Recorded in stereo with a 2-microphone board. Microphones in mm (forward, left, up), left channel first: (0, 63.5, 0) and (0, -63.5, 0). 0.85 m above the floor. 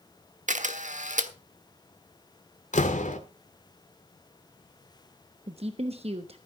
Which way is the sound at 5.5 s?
50° right (ahead or behind).